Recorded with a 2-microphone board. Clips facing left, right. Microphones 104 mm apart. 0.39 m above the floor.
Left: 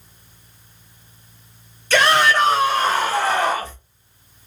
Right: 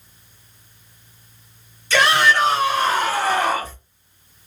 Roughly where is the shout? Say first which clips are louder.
Left 1 dB; left.